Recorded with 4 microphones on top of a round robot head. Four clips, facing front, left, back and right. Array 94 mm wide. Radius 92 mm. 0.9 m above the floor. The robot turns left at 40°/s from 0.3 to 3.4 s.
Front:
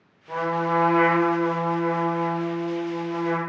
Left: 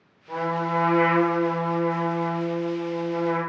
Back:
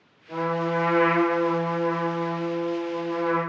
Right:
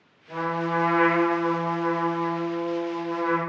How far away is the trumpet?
About 0.8 m.